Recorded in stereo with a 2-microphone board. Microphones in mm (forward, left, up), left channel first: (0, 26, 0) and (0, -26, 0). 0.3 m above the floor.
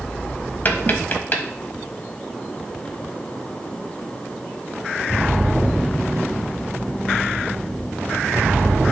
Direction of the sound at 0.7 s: 35° left (ahead or behind).